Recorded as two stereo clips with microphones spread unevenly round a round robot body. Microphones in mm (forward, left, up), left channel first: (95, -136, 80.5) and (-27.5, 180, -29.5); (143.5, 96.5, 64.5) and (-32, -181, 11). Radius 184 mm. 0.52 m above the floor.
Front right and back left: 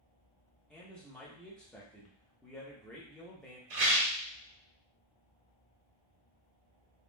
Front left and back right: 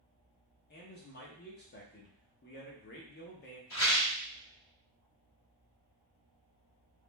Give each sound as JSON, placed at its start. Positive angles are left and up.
{"t": 0.7, "sound": "a man speaking", "azimuth_deg": 70, "distance_m": 0.7}
{"t": 3.7, "sound": "a rattle", "azimuth_deg": 100, "distance_m": 1.7}